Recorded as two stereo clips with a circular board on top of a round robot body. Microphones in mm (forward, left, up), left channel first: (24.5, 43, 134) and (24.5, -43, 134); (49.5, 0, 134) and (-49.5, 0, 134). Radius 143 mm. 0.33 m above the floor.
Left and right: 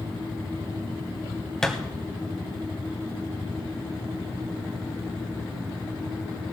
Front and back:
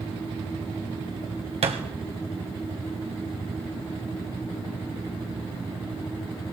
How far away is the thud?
About 1.6 m.